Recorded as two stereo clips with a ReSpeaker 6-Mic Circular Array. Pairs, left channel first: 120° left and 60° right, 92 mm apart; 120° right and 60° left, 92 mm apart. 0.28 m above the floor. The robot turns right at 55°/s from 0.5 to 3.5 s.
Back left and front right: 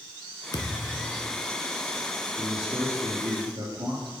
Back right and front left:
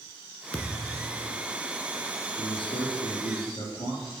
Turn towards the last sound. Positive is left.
turn(degrees=-95)